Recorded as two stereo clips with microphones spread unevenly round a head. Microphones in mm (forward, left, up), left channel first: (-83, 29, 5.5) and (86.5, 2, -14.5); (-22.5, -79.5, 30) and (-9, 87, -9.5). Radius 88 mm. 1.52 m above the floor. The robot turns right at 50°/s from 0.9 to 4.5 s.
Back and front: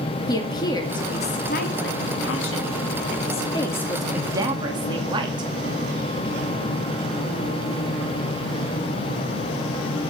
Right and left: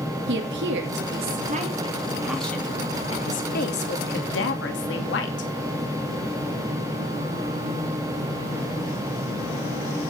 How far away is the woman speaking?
About 2.5 m.